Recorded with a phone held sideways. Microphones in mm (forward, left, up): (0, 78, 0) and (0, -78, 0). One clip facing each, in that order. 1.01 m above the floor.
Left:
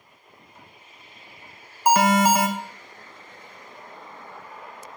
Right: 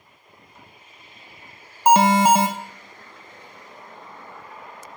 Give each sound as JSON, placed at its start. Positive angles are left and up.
{"t": 1.9, "sound": "an alarm", "side_deg": -25, "distance_m": 0.6}